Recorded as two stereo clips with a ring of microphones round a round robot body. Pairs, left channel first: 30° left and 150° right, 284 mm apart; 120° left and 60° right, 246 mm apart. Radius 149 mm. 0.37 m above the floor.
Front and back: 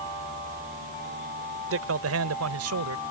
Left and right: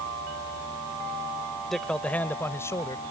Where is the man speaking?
150° right; by 3.0 s 165° right.